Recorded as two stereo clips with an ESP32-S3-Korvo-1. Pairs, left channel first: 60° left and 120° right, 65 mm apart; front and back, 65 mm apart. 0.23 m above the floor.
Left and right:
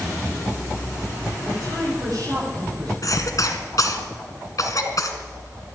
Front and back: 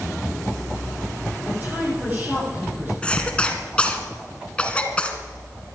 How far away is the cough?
About 1.9 m.